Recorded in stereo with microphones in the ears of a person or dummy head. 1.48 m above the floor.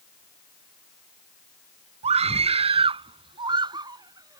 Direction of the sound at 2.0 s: 35° right (ahead or behind).